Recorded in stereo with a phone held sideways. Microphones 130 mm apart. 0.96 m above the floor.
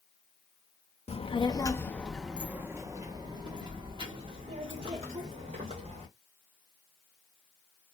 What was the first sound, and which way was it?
A child speaking, 50° left (ahead or behind).